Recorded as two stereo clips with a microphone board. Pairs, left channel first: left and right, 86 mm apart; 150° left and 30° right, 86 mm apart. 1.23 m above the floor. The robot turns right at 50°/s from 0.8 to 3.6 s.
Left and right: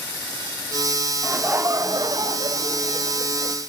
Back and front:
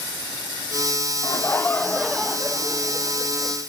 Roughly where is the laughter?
Behind.